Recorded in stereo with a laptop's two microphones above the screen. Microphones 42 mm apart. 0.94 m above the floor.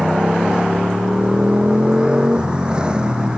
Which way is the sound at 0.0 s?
20° right (ahead or behind).